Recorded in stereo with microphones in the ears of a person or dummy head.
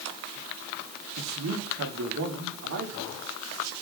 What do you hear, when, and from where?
1.2 s a man speaking: 75° right (ahead or behind), 3.5 m; by 3.7 s 85° right, 4.5 m